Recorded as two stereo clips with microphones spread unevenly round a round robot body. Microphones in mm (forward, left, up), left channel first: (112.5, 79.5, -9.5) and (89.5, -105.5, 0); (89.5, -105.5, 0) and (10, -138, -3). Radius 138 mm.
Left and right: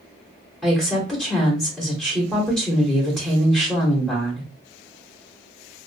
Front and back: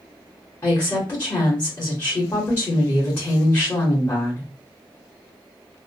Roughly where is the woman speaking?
Ahead.